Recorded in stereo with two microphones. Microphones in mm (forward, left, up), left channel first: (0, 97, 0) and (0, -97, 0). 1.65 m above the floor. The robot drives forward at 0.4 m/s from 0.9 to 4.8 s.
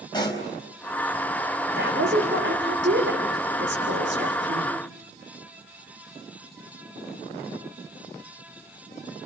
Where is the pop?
20° left (ahead or behind), 4.5 m.